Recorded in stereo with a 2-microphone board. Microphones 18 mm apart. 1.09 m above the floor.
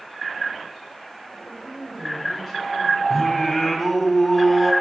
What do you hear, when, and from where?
1.3 s a woman speaking: 5° left (ahead or behind), 5.5 m
3.1 s singing: 5° left (ahead or behind), 2 m